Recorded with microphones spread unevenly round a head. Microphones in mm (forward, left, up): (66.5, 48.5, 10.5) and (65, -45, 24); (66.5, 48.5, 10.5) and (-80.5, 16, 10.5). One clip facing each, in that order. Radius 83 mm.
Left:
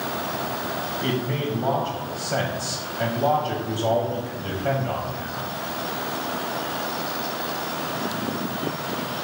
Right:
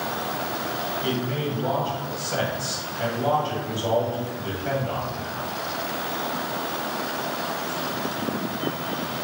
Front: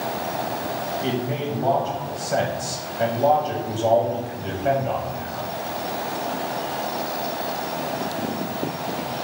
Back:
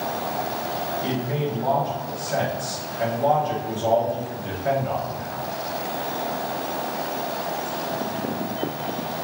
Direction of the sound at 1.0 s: 70° left.